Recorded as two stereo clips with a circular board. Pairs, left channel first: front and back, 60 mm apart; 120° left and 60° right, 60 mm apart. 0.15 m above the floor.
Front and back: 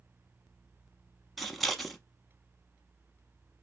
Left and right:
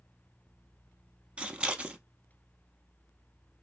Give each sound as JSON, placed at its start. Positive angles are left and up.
{"t": 1.4, "sound": "scissors", "azimuth_deg": -80, "distance_m": 0.5}